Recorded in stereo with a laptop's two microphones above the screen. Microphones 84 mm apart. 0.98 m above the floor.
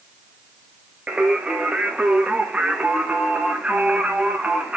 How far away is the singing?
About 0.7 m.